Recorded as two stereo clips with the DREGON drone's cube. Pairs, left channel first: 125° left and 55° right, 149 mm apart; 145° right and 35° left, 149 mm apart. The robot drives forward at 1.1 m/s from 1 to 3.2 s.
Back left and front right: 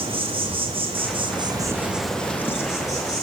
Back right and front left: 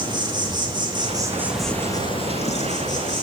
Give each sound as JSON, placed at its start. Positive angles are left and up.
{"t": 0.0, "sound": "an insect", "azimuth_deg": -15, "distance_m": 1.1}